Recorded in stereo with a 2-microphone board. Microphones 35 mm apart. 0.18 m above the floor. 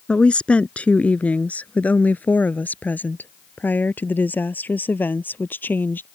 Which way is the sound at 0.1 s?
35° left (ahead or behind).